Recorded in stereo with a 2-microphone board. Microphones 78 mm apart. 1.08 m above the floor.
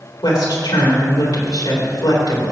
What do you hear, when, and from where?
0.2 s a woman speaking: 70° left (ahead or behind), 3.5 m